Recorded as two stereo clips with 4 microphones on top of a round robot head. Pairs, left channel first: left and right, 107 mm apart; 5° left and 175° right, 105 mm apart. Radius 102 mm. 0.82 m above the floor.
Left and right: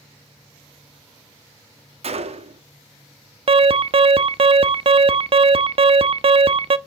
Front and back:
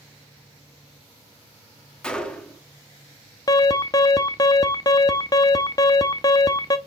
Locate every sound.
2.0 s a gunshot: 80° right, 1.9 m
3.5 s an alarm: 55° right, 0.7 m